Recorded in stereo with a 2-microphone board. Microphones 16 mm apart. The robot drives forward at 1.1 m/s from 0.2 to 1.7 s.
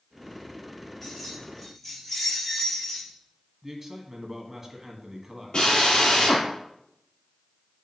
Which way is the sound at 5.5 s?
55° left (ahead or behind).